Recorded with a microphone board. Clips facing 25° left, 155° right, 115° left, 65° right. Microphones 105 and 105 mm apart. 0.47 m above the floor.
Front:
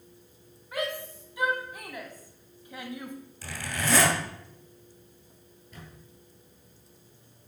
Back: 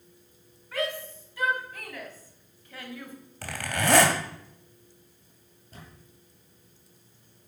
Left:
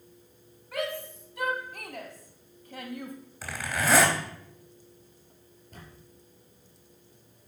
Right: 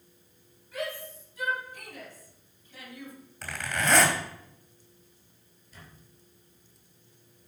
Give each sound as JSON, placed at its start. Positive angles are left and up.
{"t": 0.7, "sound": "a shout", "azimuth_deg": 95, "distance_m": 4.0}
{"t": 3.4, "sound": "a zipper", "azimuth_deg": -165, "distance_m": 2.0}
{"t": 5.7, "sound": "a camera shutter", "azimuth_deg": 150, "distance_m": 4.5}